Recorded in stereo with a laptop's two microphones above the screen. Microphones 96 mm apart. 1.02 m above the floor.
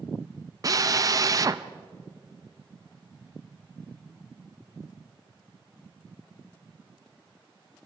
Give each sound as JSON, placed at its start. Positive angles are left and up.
{"t": 0.6, "sound": "a drill", "side_deg": -40, "distance_m": 0.5}